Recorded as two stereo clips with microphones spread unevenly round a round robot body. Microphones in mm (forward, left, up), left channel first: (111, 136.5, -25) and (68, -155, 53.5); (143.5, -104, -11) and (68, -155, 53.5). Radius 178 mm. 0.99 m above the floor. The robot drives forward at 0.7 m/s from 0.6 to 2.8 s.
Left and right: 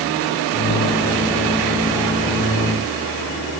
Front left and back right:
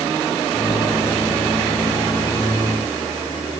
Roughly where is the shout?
I don't hear a shout.